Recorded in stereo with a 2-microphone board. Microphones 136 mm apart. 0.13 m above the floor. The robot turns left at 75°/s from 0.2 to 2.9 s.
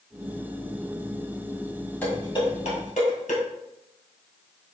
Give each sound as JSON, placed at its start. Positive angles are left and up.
{"t": 2.0, "sound": "dishes clattering", "side_deg": 10, "distance_m": 2.0}